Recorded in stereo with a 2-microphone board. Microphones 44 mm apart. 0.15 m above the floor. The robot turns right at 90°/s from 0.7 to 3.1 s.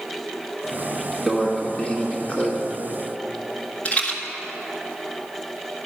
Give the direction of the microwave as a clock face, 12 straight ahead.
12 o'clock.